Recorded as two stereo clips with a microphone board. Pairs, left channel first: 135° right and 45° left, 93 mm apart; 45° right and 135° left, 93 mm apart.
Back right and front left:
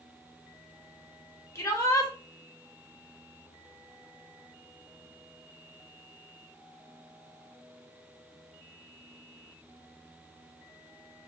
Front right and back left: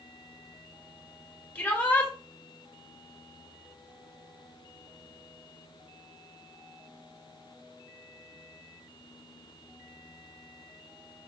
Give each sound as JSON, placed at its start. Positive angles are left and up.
{"t": 1.6, "sound": "a shout", "azimuth_deg": -105, "distance_m": 1.5}